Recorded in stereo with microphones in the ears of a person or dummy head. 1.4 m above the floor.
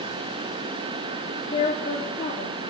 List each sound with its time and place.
1.2 s a woman speaking: 25° left (ahead or behind), 1.1 m